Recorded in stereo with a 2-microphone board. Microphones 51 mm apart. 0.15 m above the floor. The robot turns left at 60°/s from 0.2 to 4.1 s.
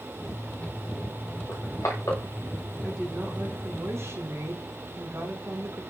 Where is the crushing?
75° left (ahead or behind), 8.5 m; by 2.2 s 60° left (ahead or behind), 8.5 m.